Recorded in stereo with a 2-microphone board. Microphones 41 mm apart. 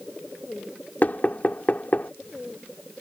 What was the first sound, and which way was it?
Knocking, 45° left (ahead or behind).